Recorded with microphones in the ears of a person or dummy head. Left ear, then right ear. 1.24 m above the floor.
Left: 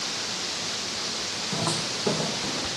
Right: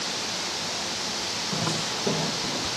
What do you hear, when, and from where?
1.5 s footsteps: 15° left (ahead or behind), 2.5 m; by 2.7 s 10° left (ahead or behind), 3 m